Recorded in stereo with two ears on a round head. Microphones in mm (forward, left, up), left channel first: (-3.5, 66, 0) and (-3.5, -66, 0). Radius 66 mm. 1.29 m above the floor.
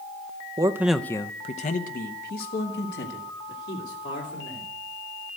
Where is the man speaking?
25° right (ahead or behind), 0.7 m; by 4.7 s 85° left, 3.5 m.